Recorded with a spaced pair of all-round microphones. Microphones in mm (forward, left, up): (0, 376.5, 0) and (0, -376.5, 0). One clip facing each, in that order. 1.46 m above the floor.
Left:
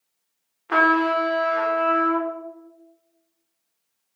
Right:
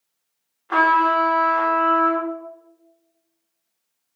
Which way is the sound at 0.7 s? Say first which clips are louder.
Left 2 dB; 60° left (ahead or behind).